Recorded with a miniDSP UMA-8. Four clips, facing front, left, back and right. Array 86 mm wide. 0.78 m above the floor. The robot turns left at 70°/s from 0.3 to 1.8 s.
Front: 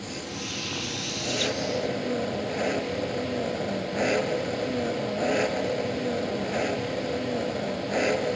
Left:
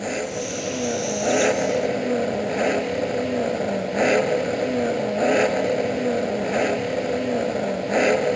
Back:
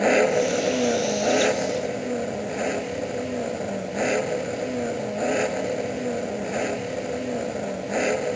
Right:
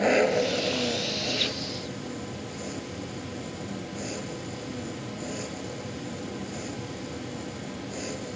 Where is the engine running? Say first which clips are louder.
Right 5 dB, back 17 dB; 160° right; by 8.4 s 95° left.